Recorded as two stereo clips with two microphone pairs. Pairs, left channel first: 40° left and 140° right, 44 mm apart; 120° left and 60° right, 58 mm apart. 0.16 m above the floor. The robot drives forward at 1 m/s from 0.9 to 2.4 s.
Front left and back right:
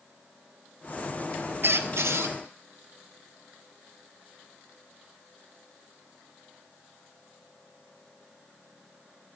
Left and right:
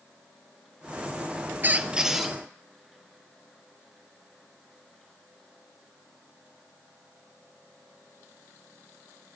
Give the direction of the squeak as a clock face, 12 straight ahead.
4 o'clock.